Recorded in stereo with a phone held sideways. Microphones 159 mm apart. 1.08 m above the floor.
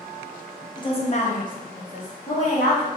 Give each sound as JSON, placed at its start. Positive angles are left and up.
{"t": 0.8, "sound": "a woman speaking", "side_deg": 25, "distance_m": 0.6}